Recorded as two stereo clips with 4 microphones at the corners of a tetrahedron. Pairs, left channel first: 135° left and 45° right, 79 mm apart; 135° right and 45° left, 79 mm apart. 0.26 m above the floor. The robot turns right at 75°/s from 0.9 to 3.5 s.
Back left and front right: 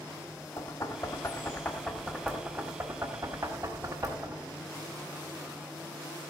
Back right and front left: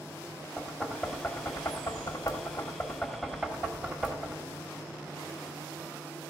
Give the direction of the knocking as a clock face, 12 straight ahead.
7 o'clock.